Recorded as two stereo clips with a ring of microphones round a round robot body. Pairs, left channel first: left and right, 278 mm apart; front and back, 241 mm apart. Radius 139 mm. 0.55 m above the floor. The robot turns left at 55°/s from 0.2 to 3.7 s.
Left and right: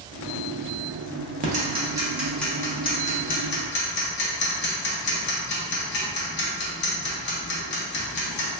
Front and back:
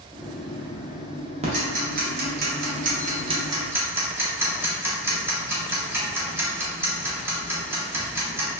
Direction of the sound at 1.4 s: 130° right.